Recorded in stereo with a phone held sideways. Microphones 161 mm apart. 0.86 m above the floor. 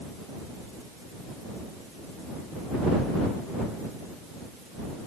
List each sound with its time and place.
Only background noise.